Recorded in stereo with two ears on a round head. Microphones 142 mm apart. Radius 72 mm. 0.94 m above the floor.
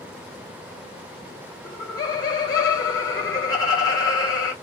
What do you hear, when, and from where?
1.6 s laughter: 25° left (ahead or behind), 0.9 m